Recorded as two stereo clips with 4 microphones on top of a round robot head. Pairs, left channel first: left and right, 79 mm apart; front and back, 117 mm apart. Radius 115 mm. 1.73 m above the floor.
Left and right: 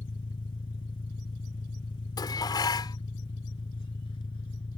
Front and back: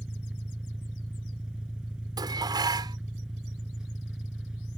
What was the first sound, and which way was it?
An engine running, 95° left.